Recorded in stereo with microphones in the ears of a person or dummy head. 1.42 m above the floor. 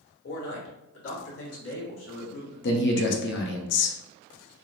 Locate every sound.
0.2 s a man speaking: 70° left (ahead or behind), 1.6 m; by 2.7 s 60° left (ahead or behind), 1.6 m
2.6 s a man speaking: 55° left (ahead or behind), 0.7 m